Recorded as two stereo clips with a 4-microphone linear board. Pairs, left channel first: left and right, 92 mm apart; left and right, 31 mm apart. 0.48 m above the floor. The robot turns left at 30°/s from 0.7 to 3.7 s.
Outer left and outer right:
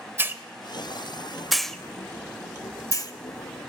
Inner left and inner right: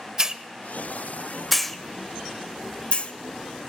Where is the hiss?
25° right (ahead or behind), 0.6 m; by 3.1 s 50° left (ahead or behind), 0.6 m.